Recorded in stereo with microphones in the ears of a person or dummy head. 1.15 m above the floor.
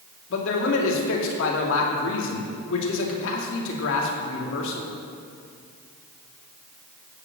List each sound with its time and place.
0.3 s a man speaking: 75° left (ahead or behind), 2.5 m